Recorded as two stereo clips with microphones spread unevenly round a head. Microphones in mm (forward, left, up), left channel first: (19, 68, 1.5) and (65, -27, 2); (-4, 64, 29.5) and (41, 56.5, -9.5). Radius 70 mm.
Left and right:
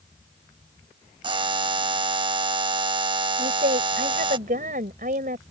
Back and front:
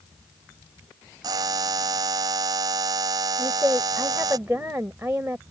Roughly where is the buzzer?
Ahead right.